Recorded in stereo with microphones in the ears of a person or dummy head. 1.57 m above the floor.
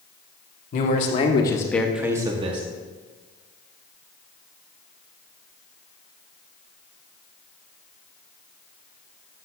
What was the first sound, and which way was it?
A man speaking, 55° left (ahead or behind).